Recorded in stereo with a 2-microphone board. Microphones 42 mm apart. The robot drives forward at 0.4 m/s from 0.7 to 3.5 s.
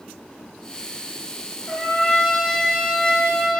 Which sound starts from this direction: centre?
A trumpet, at 1.7 s.